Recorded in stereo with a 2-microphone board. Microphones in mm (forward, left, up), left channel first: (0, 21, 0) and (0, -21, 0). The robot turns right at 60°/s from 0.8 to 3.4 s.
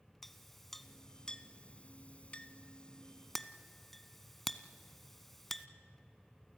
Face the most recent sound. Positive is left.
turn(degrees=5)  # may be behind; listen again after turning